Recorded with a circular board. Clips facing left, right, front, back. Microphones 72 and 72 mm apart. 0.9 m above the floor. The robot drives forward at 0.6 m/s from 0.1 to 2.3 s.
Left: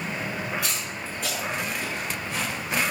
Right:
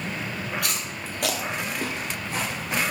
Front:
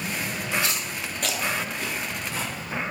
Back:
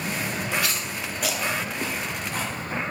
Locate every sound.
0.6 s chewing: 60° right, 0.7 m; by 2.8 s 140° right, 0.9 m